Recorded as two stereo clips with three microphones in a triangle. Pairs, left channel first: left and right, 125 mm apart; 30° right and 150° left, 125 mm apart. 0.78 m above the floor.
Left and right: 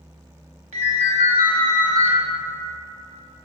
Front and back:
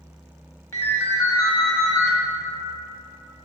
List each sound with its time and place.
0.7 s a ringtone: 95° right, 1.1 m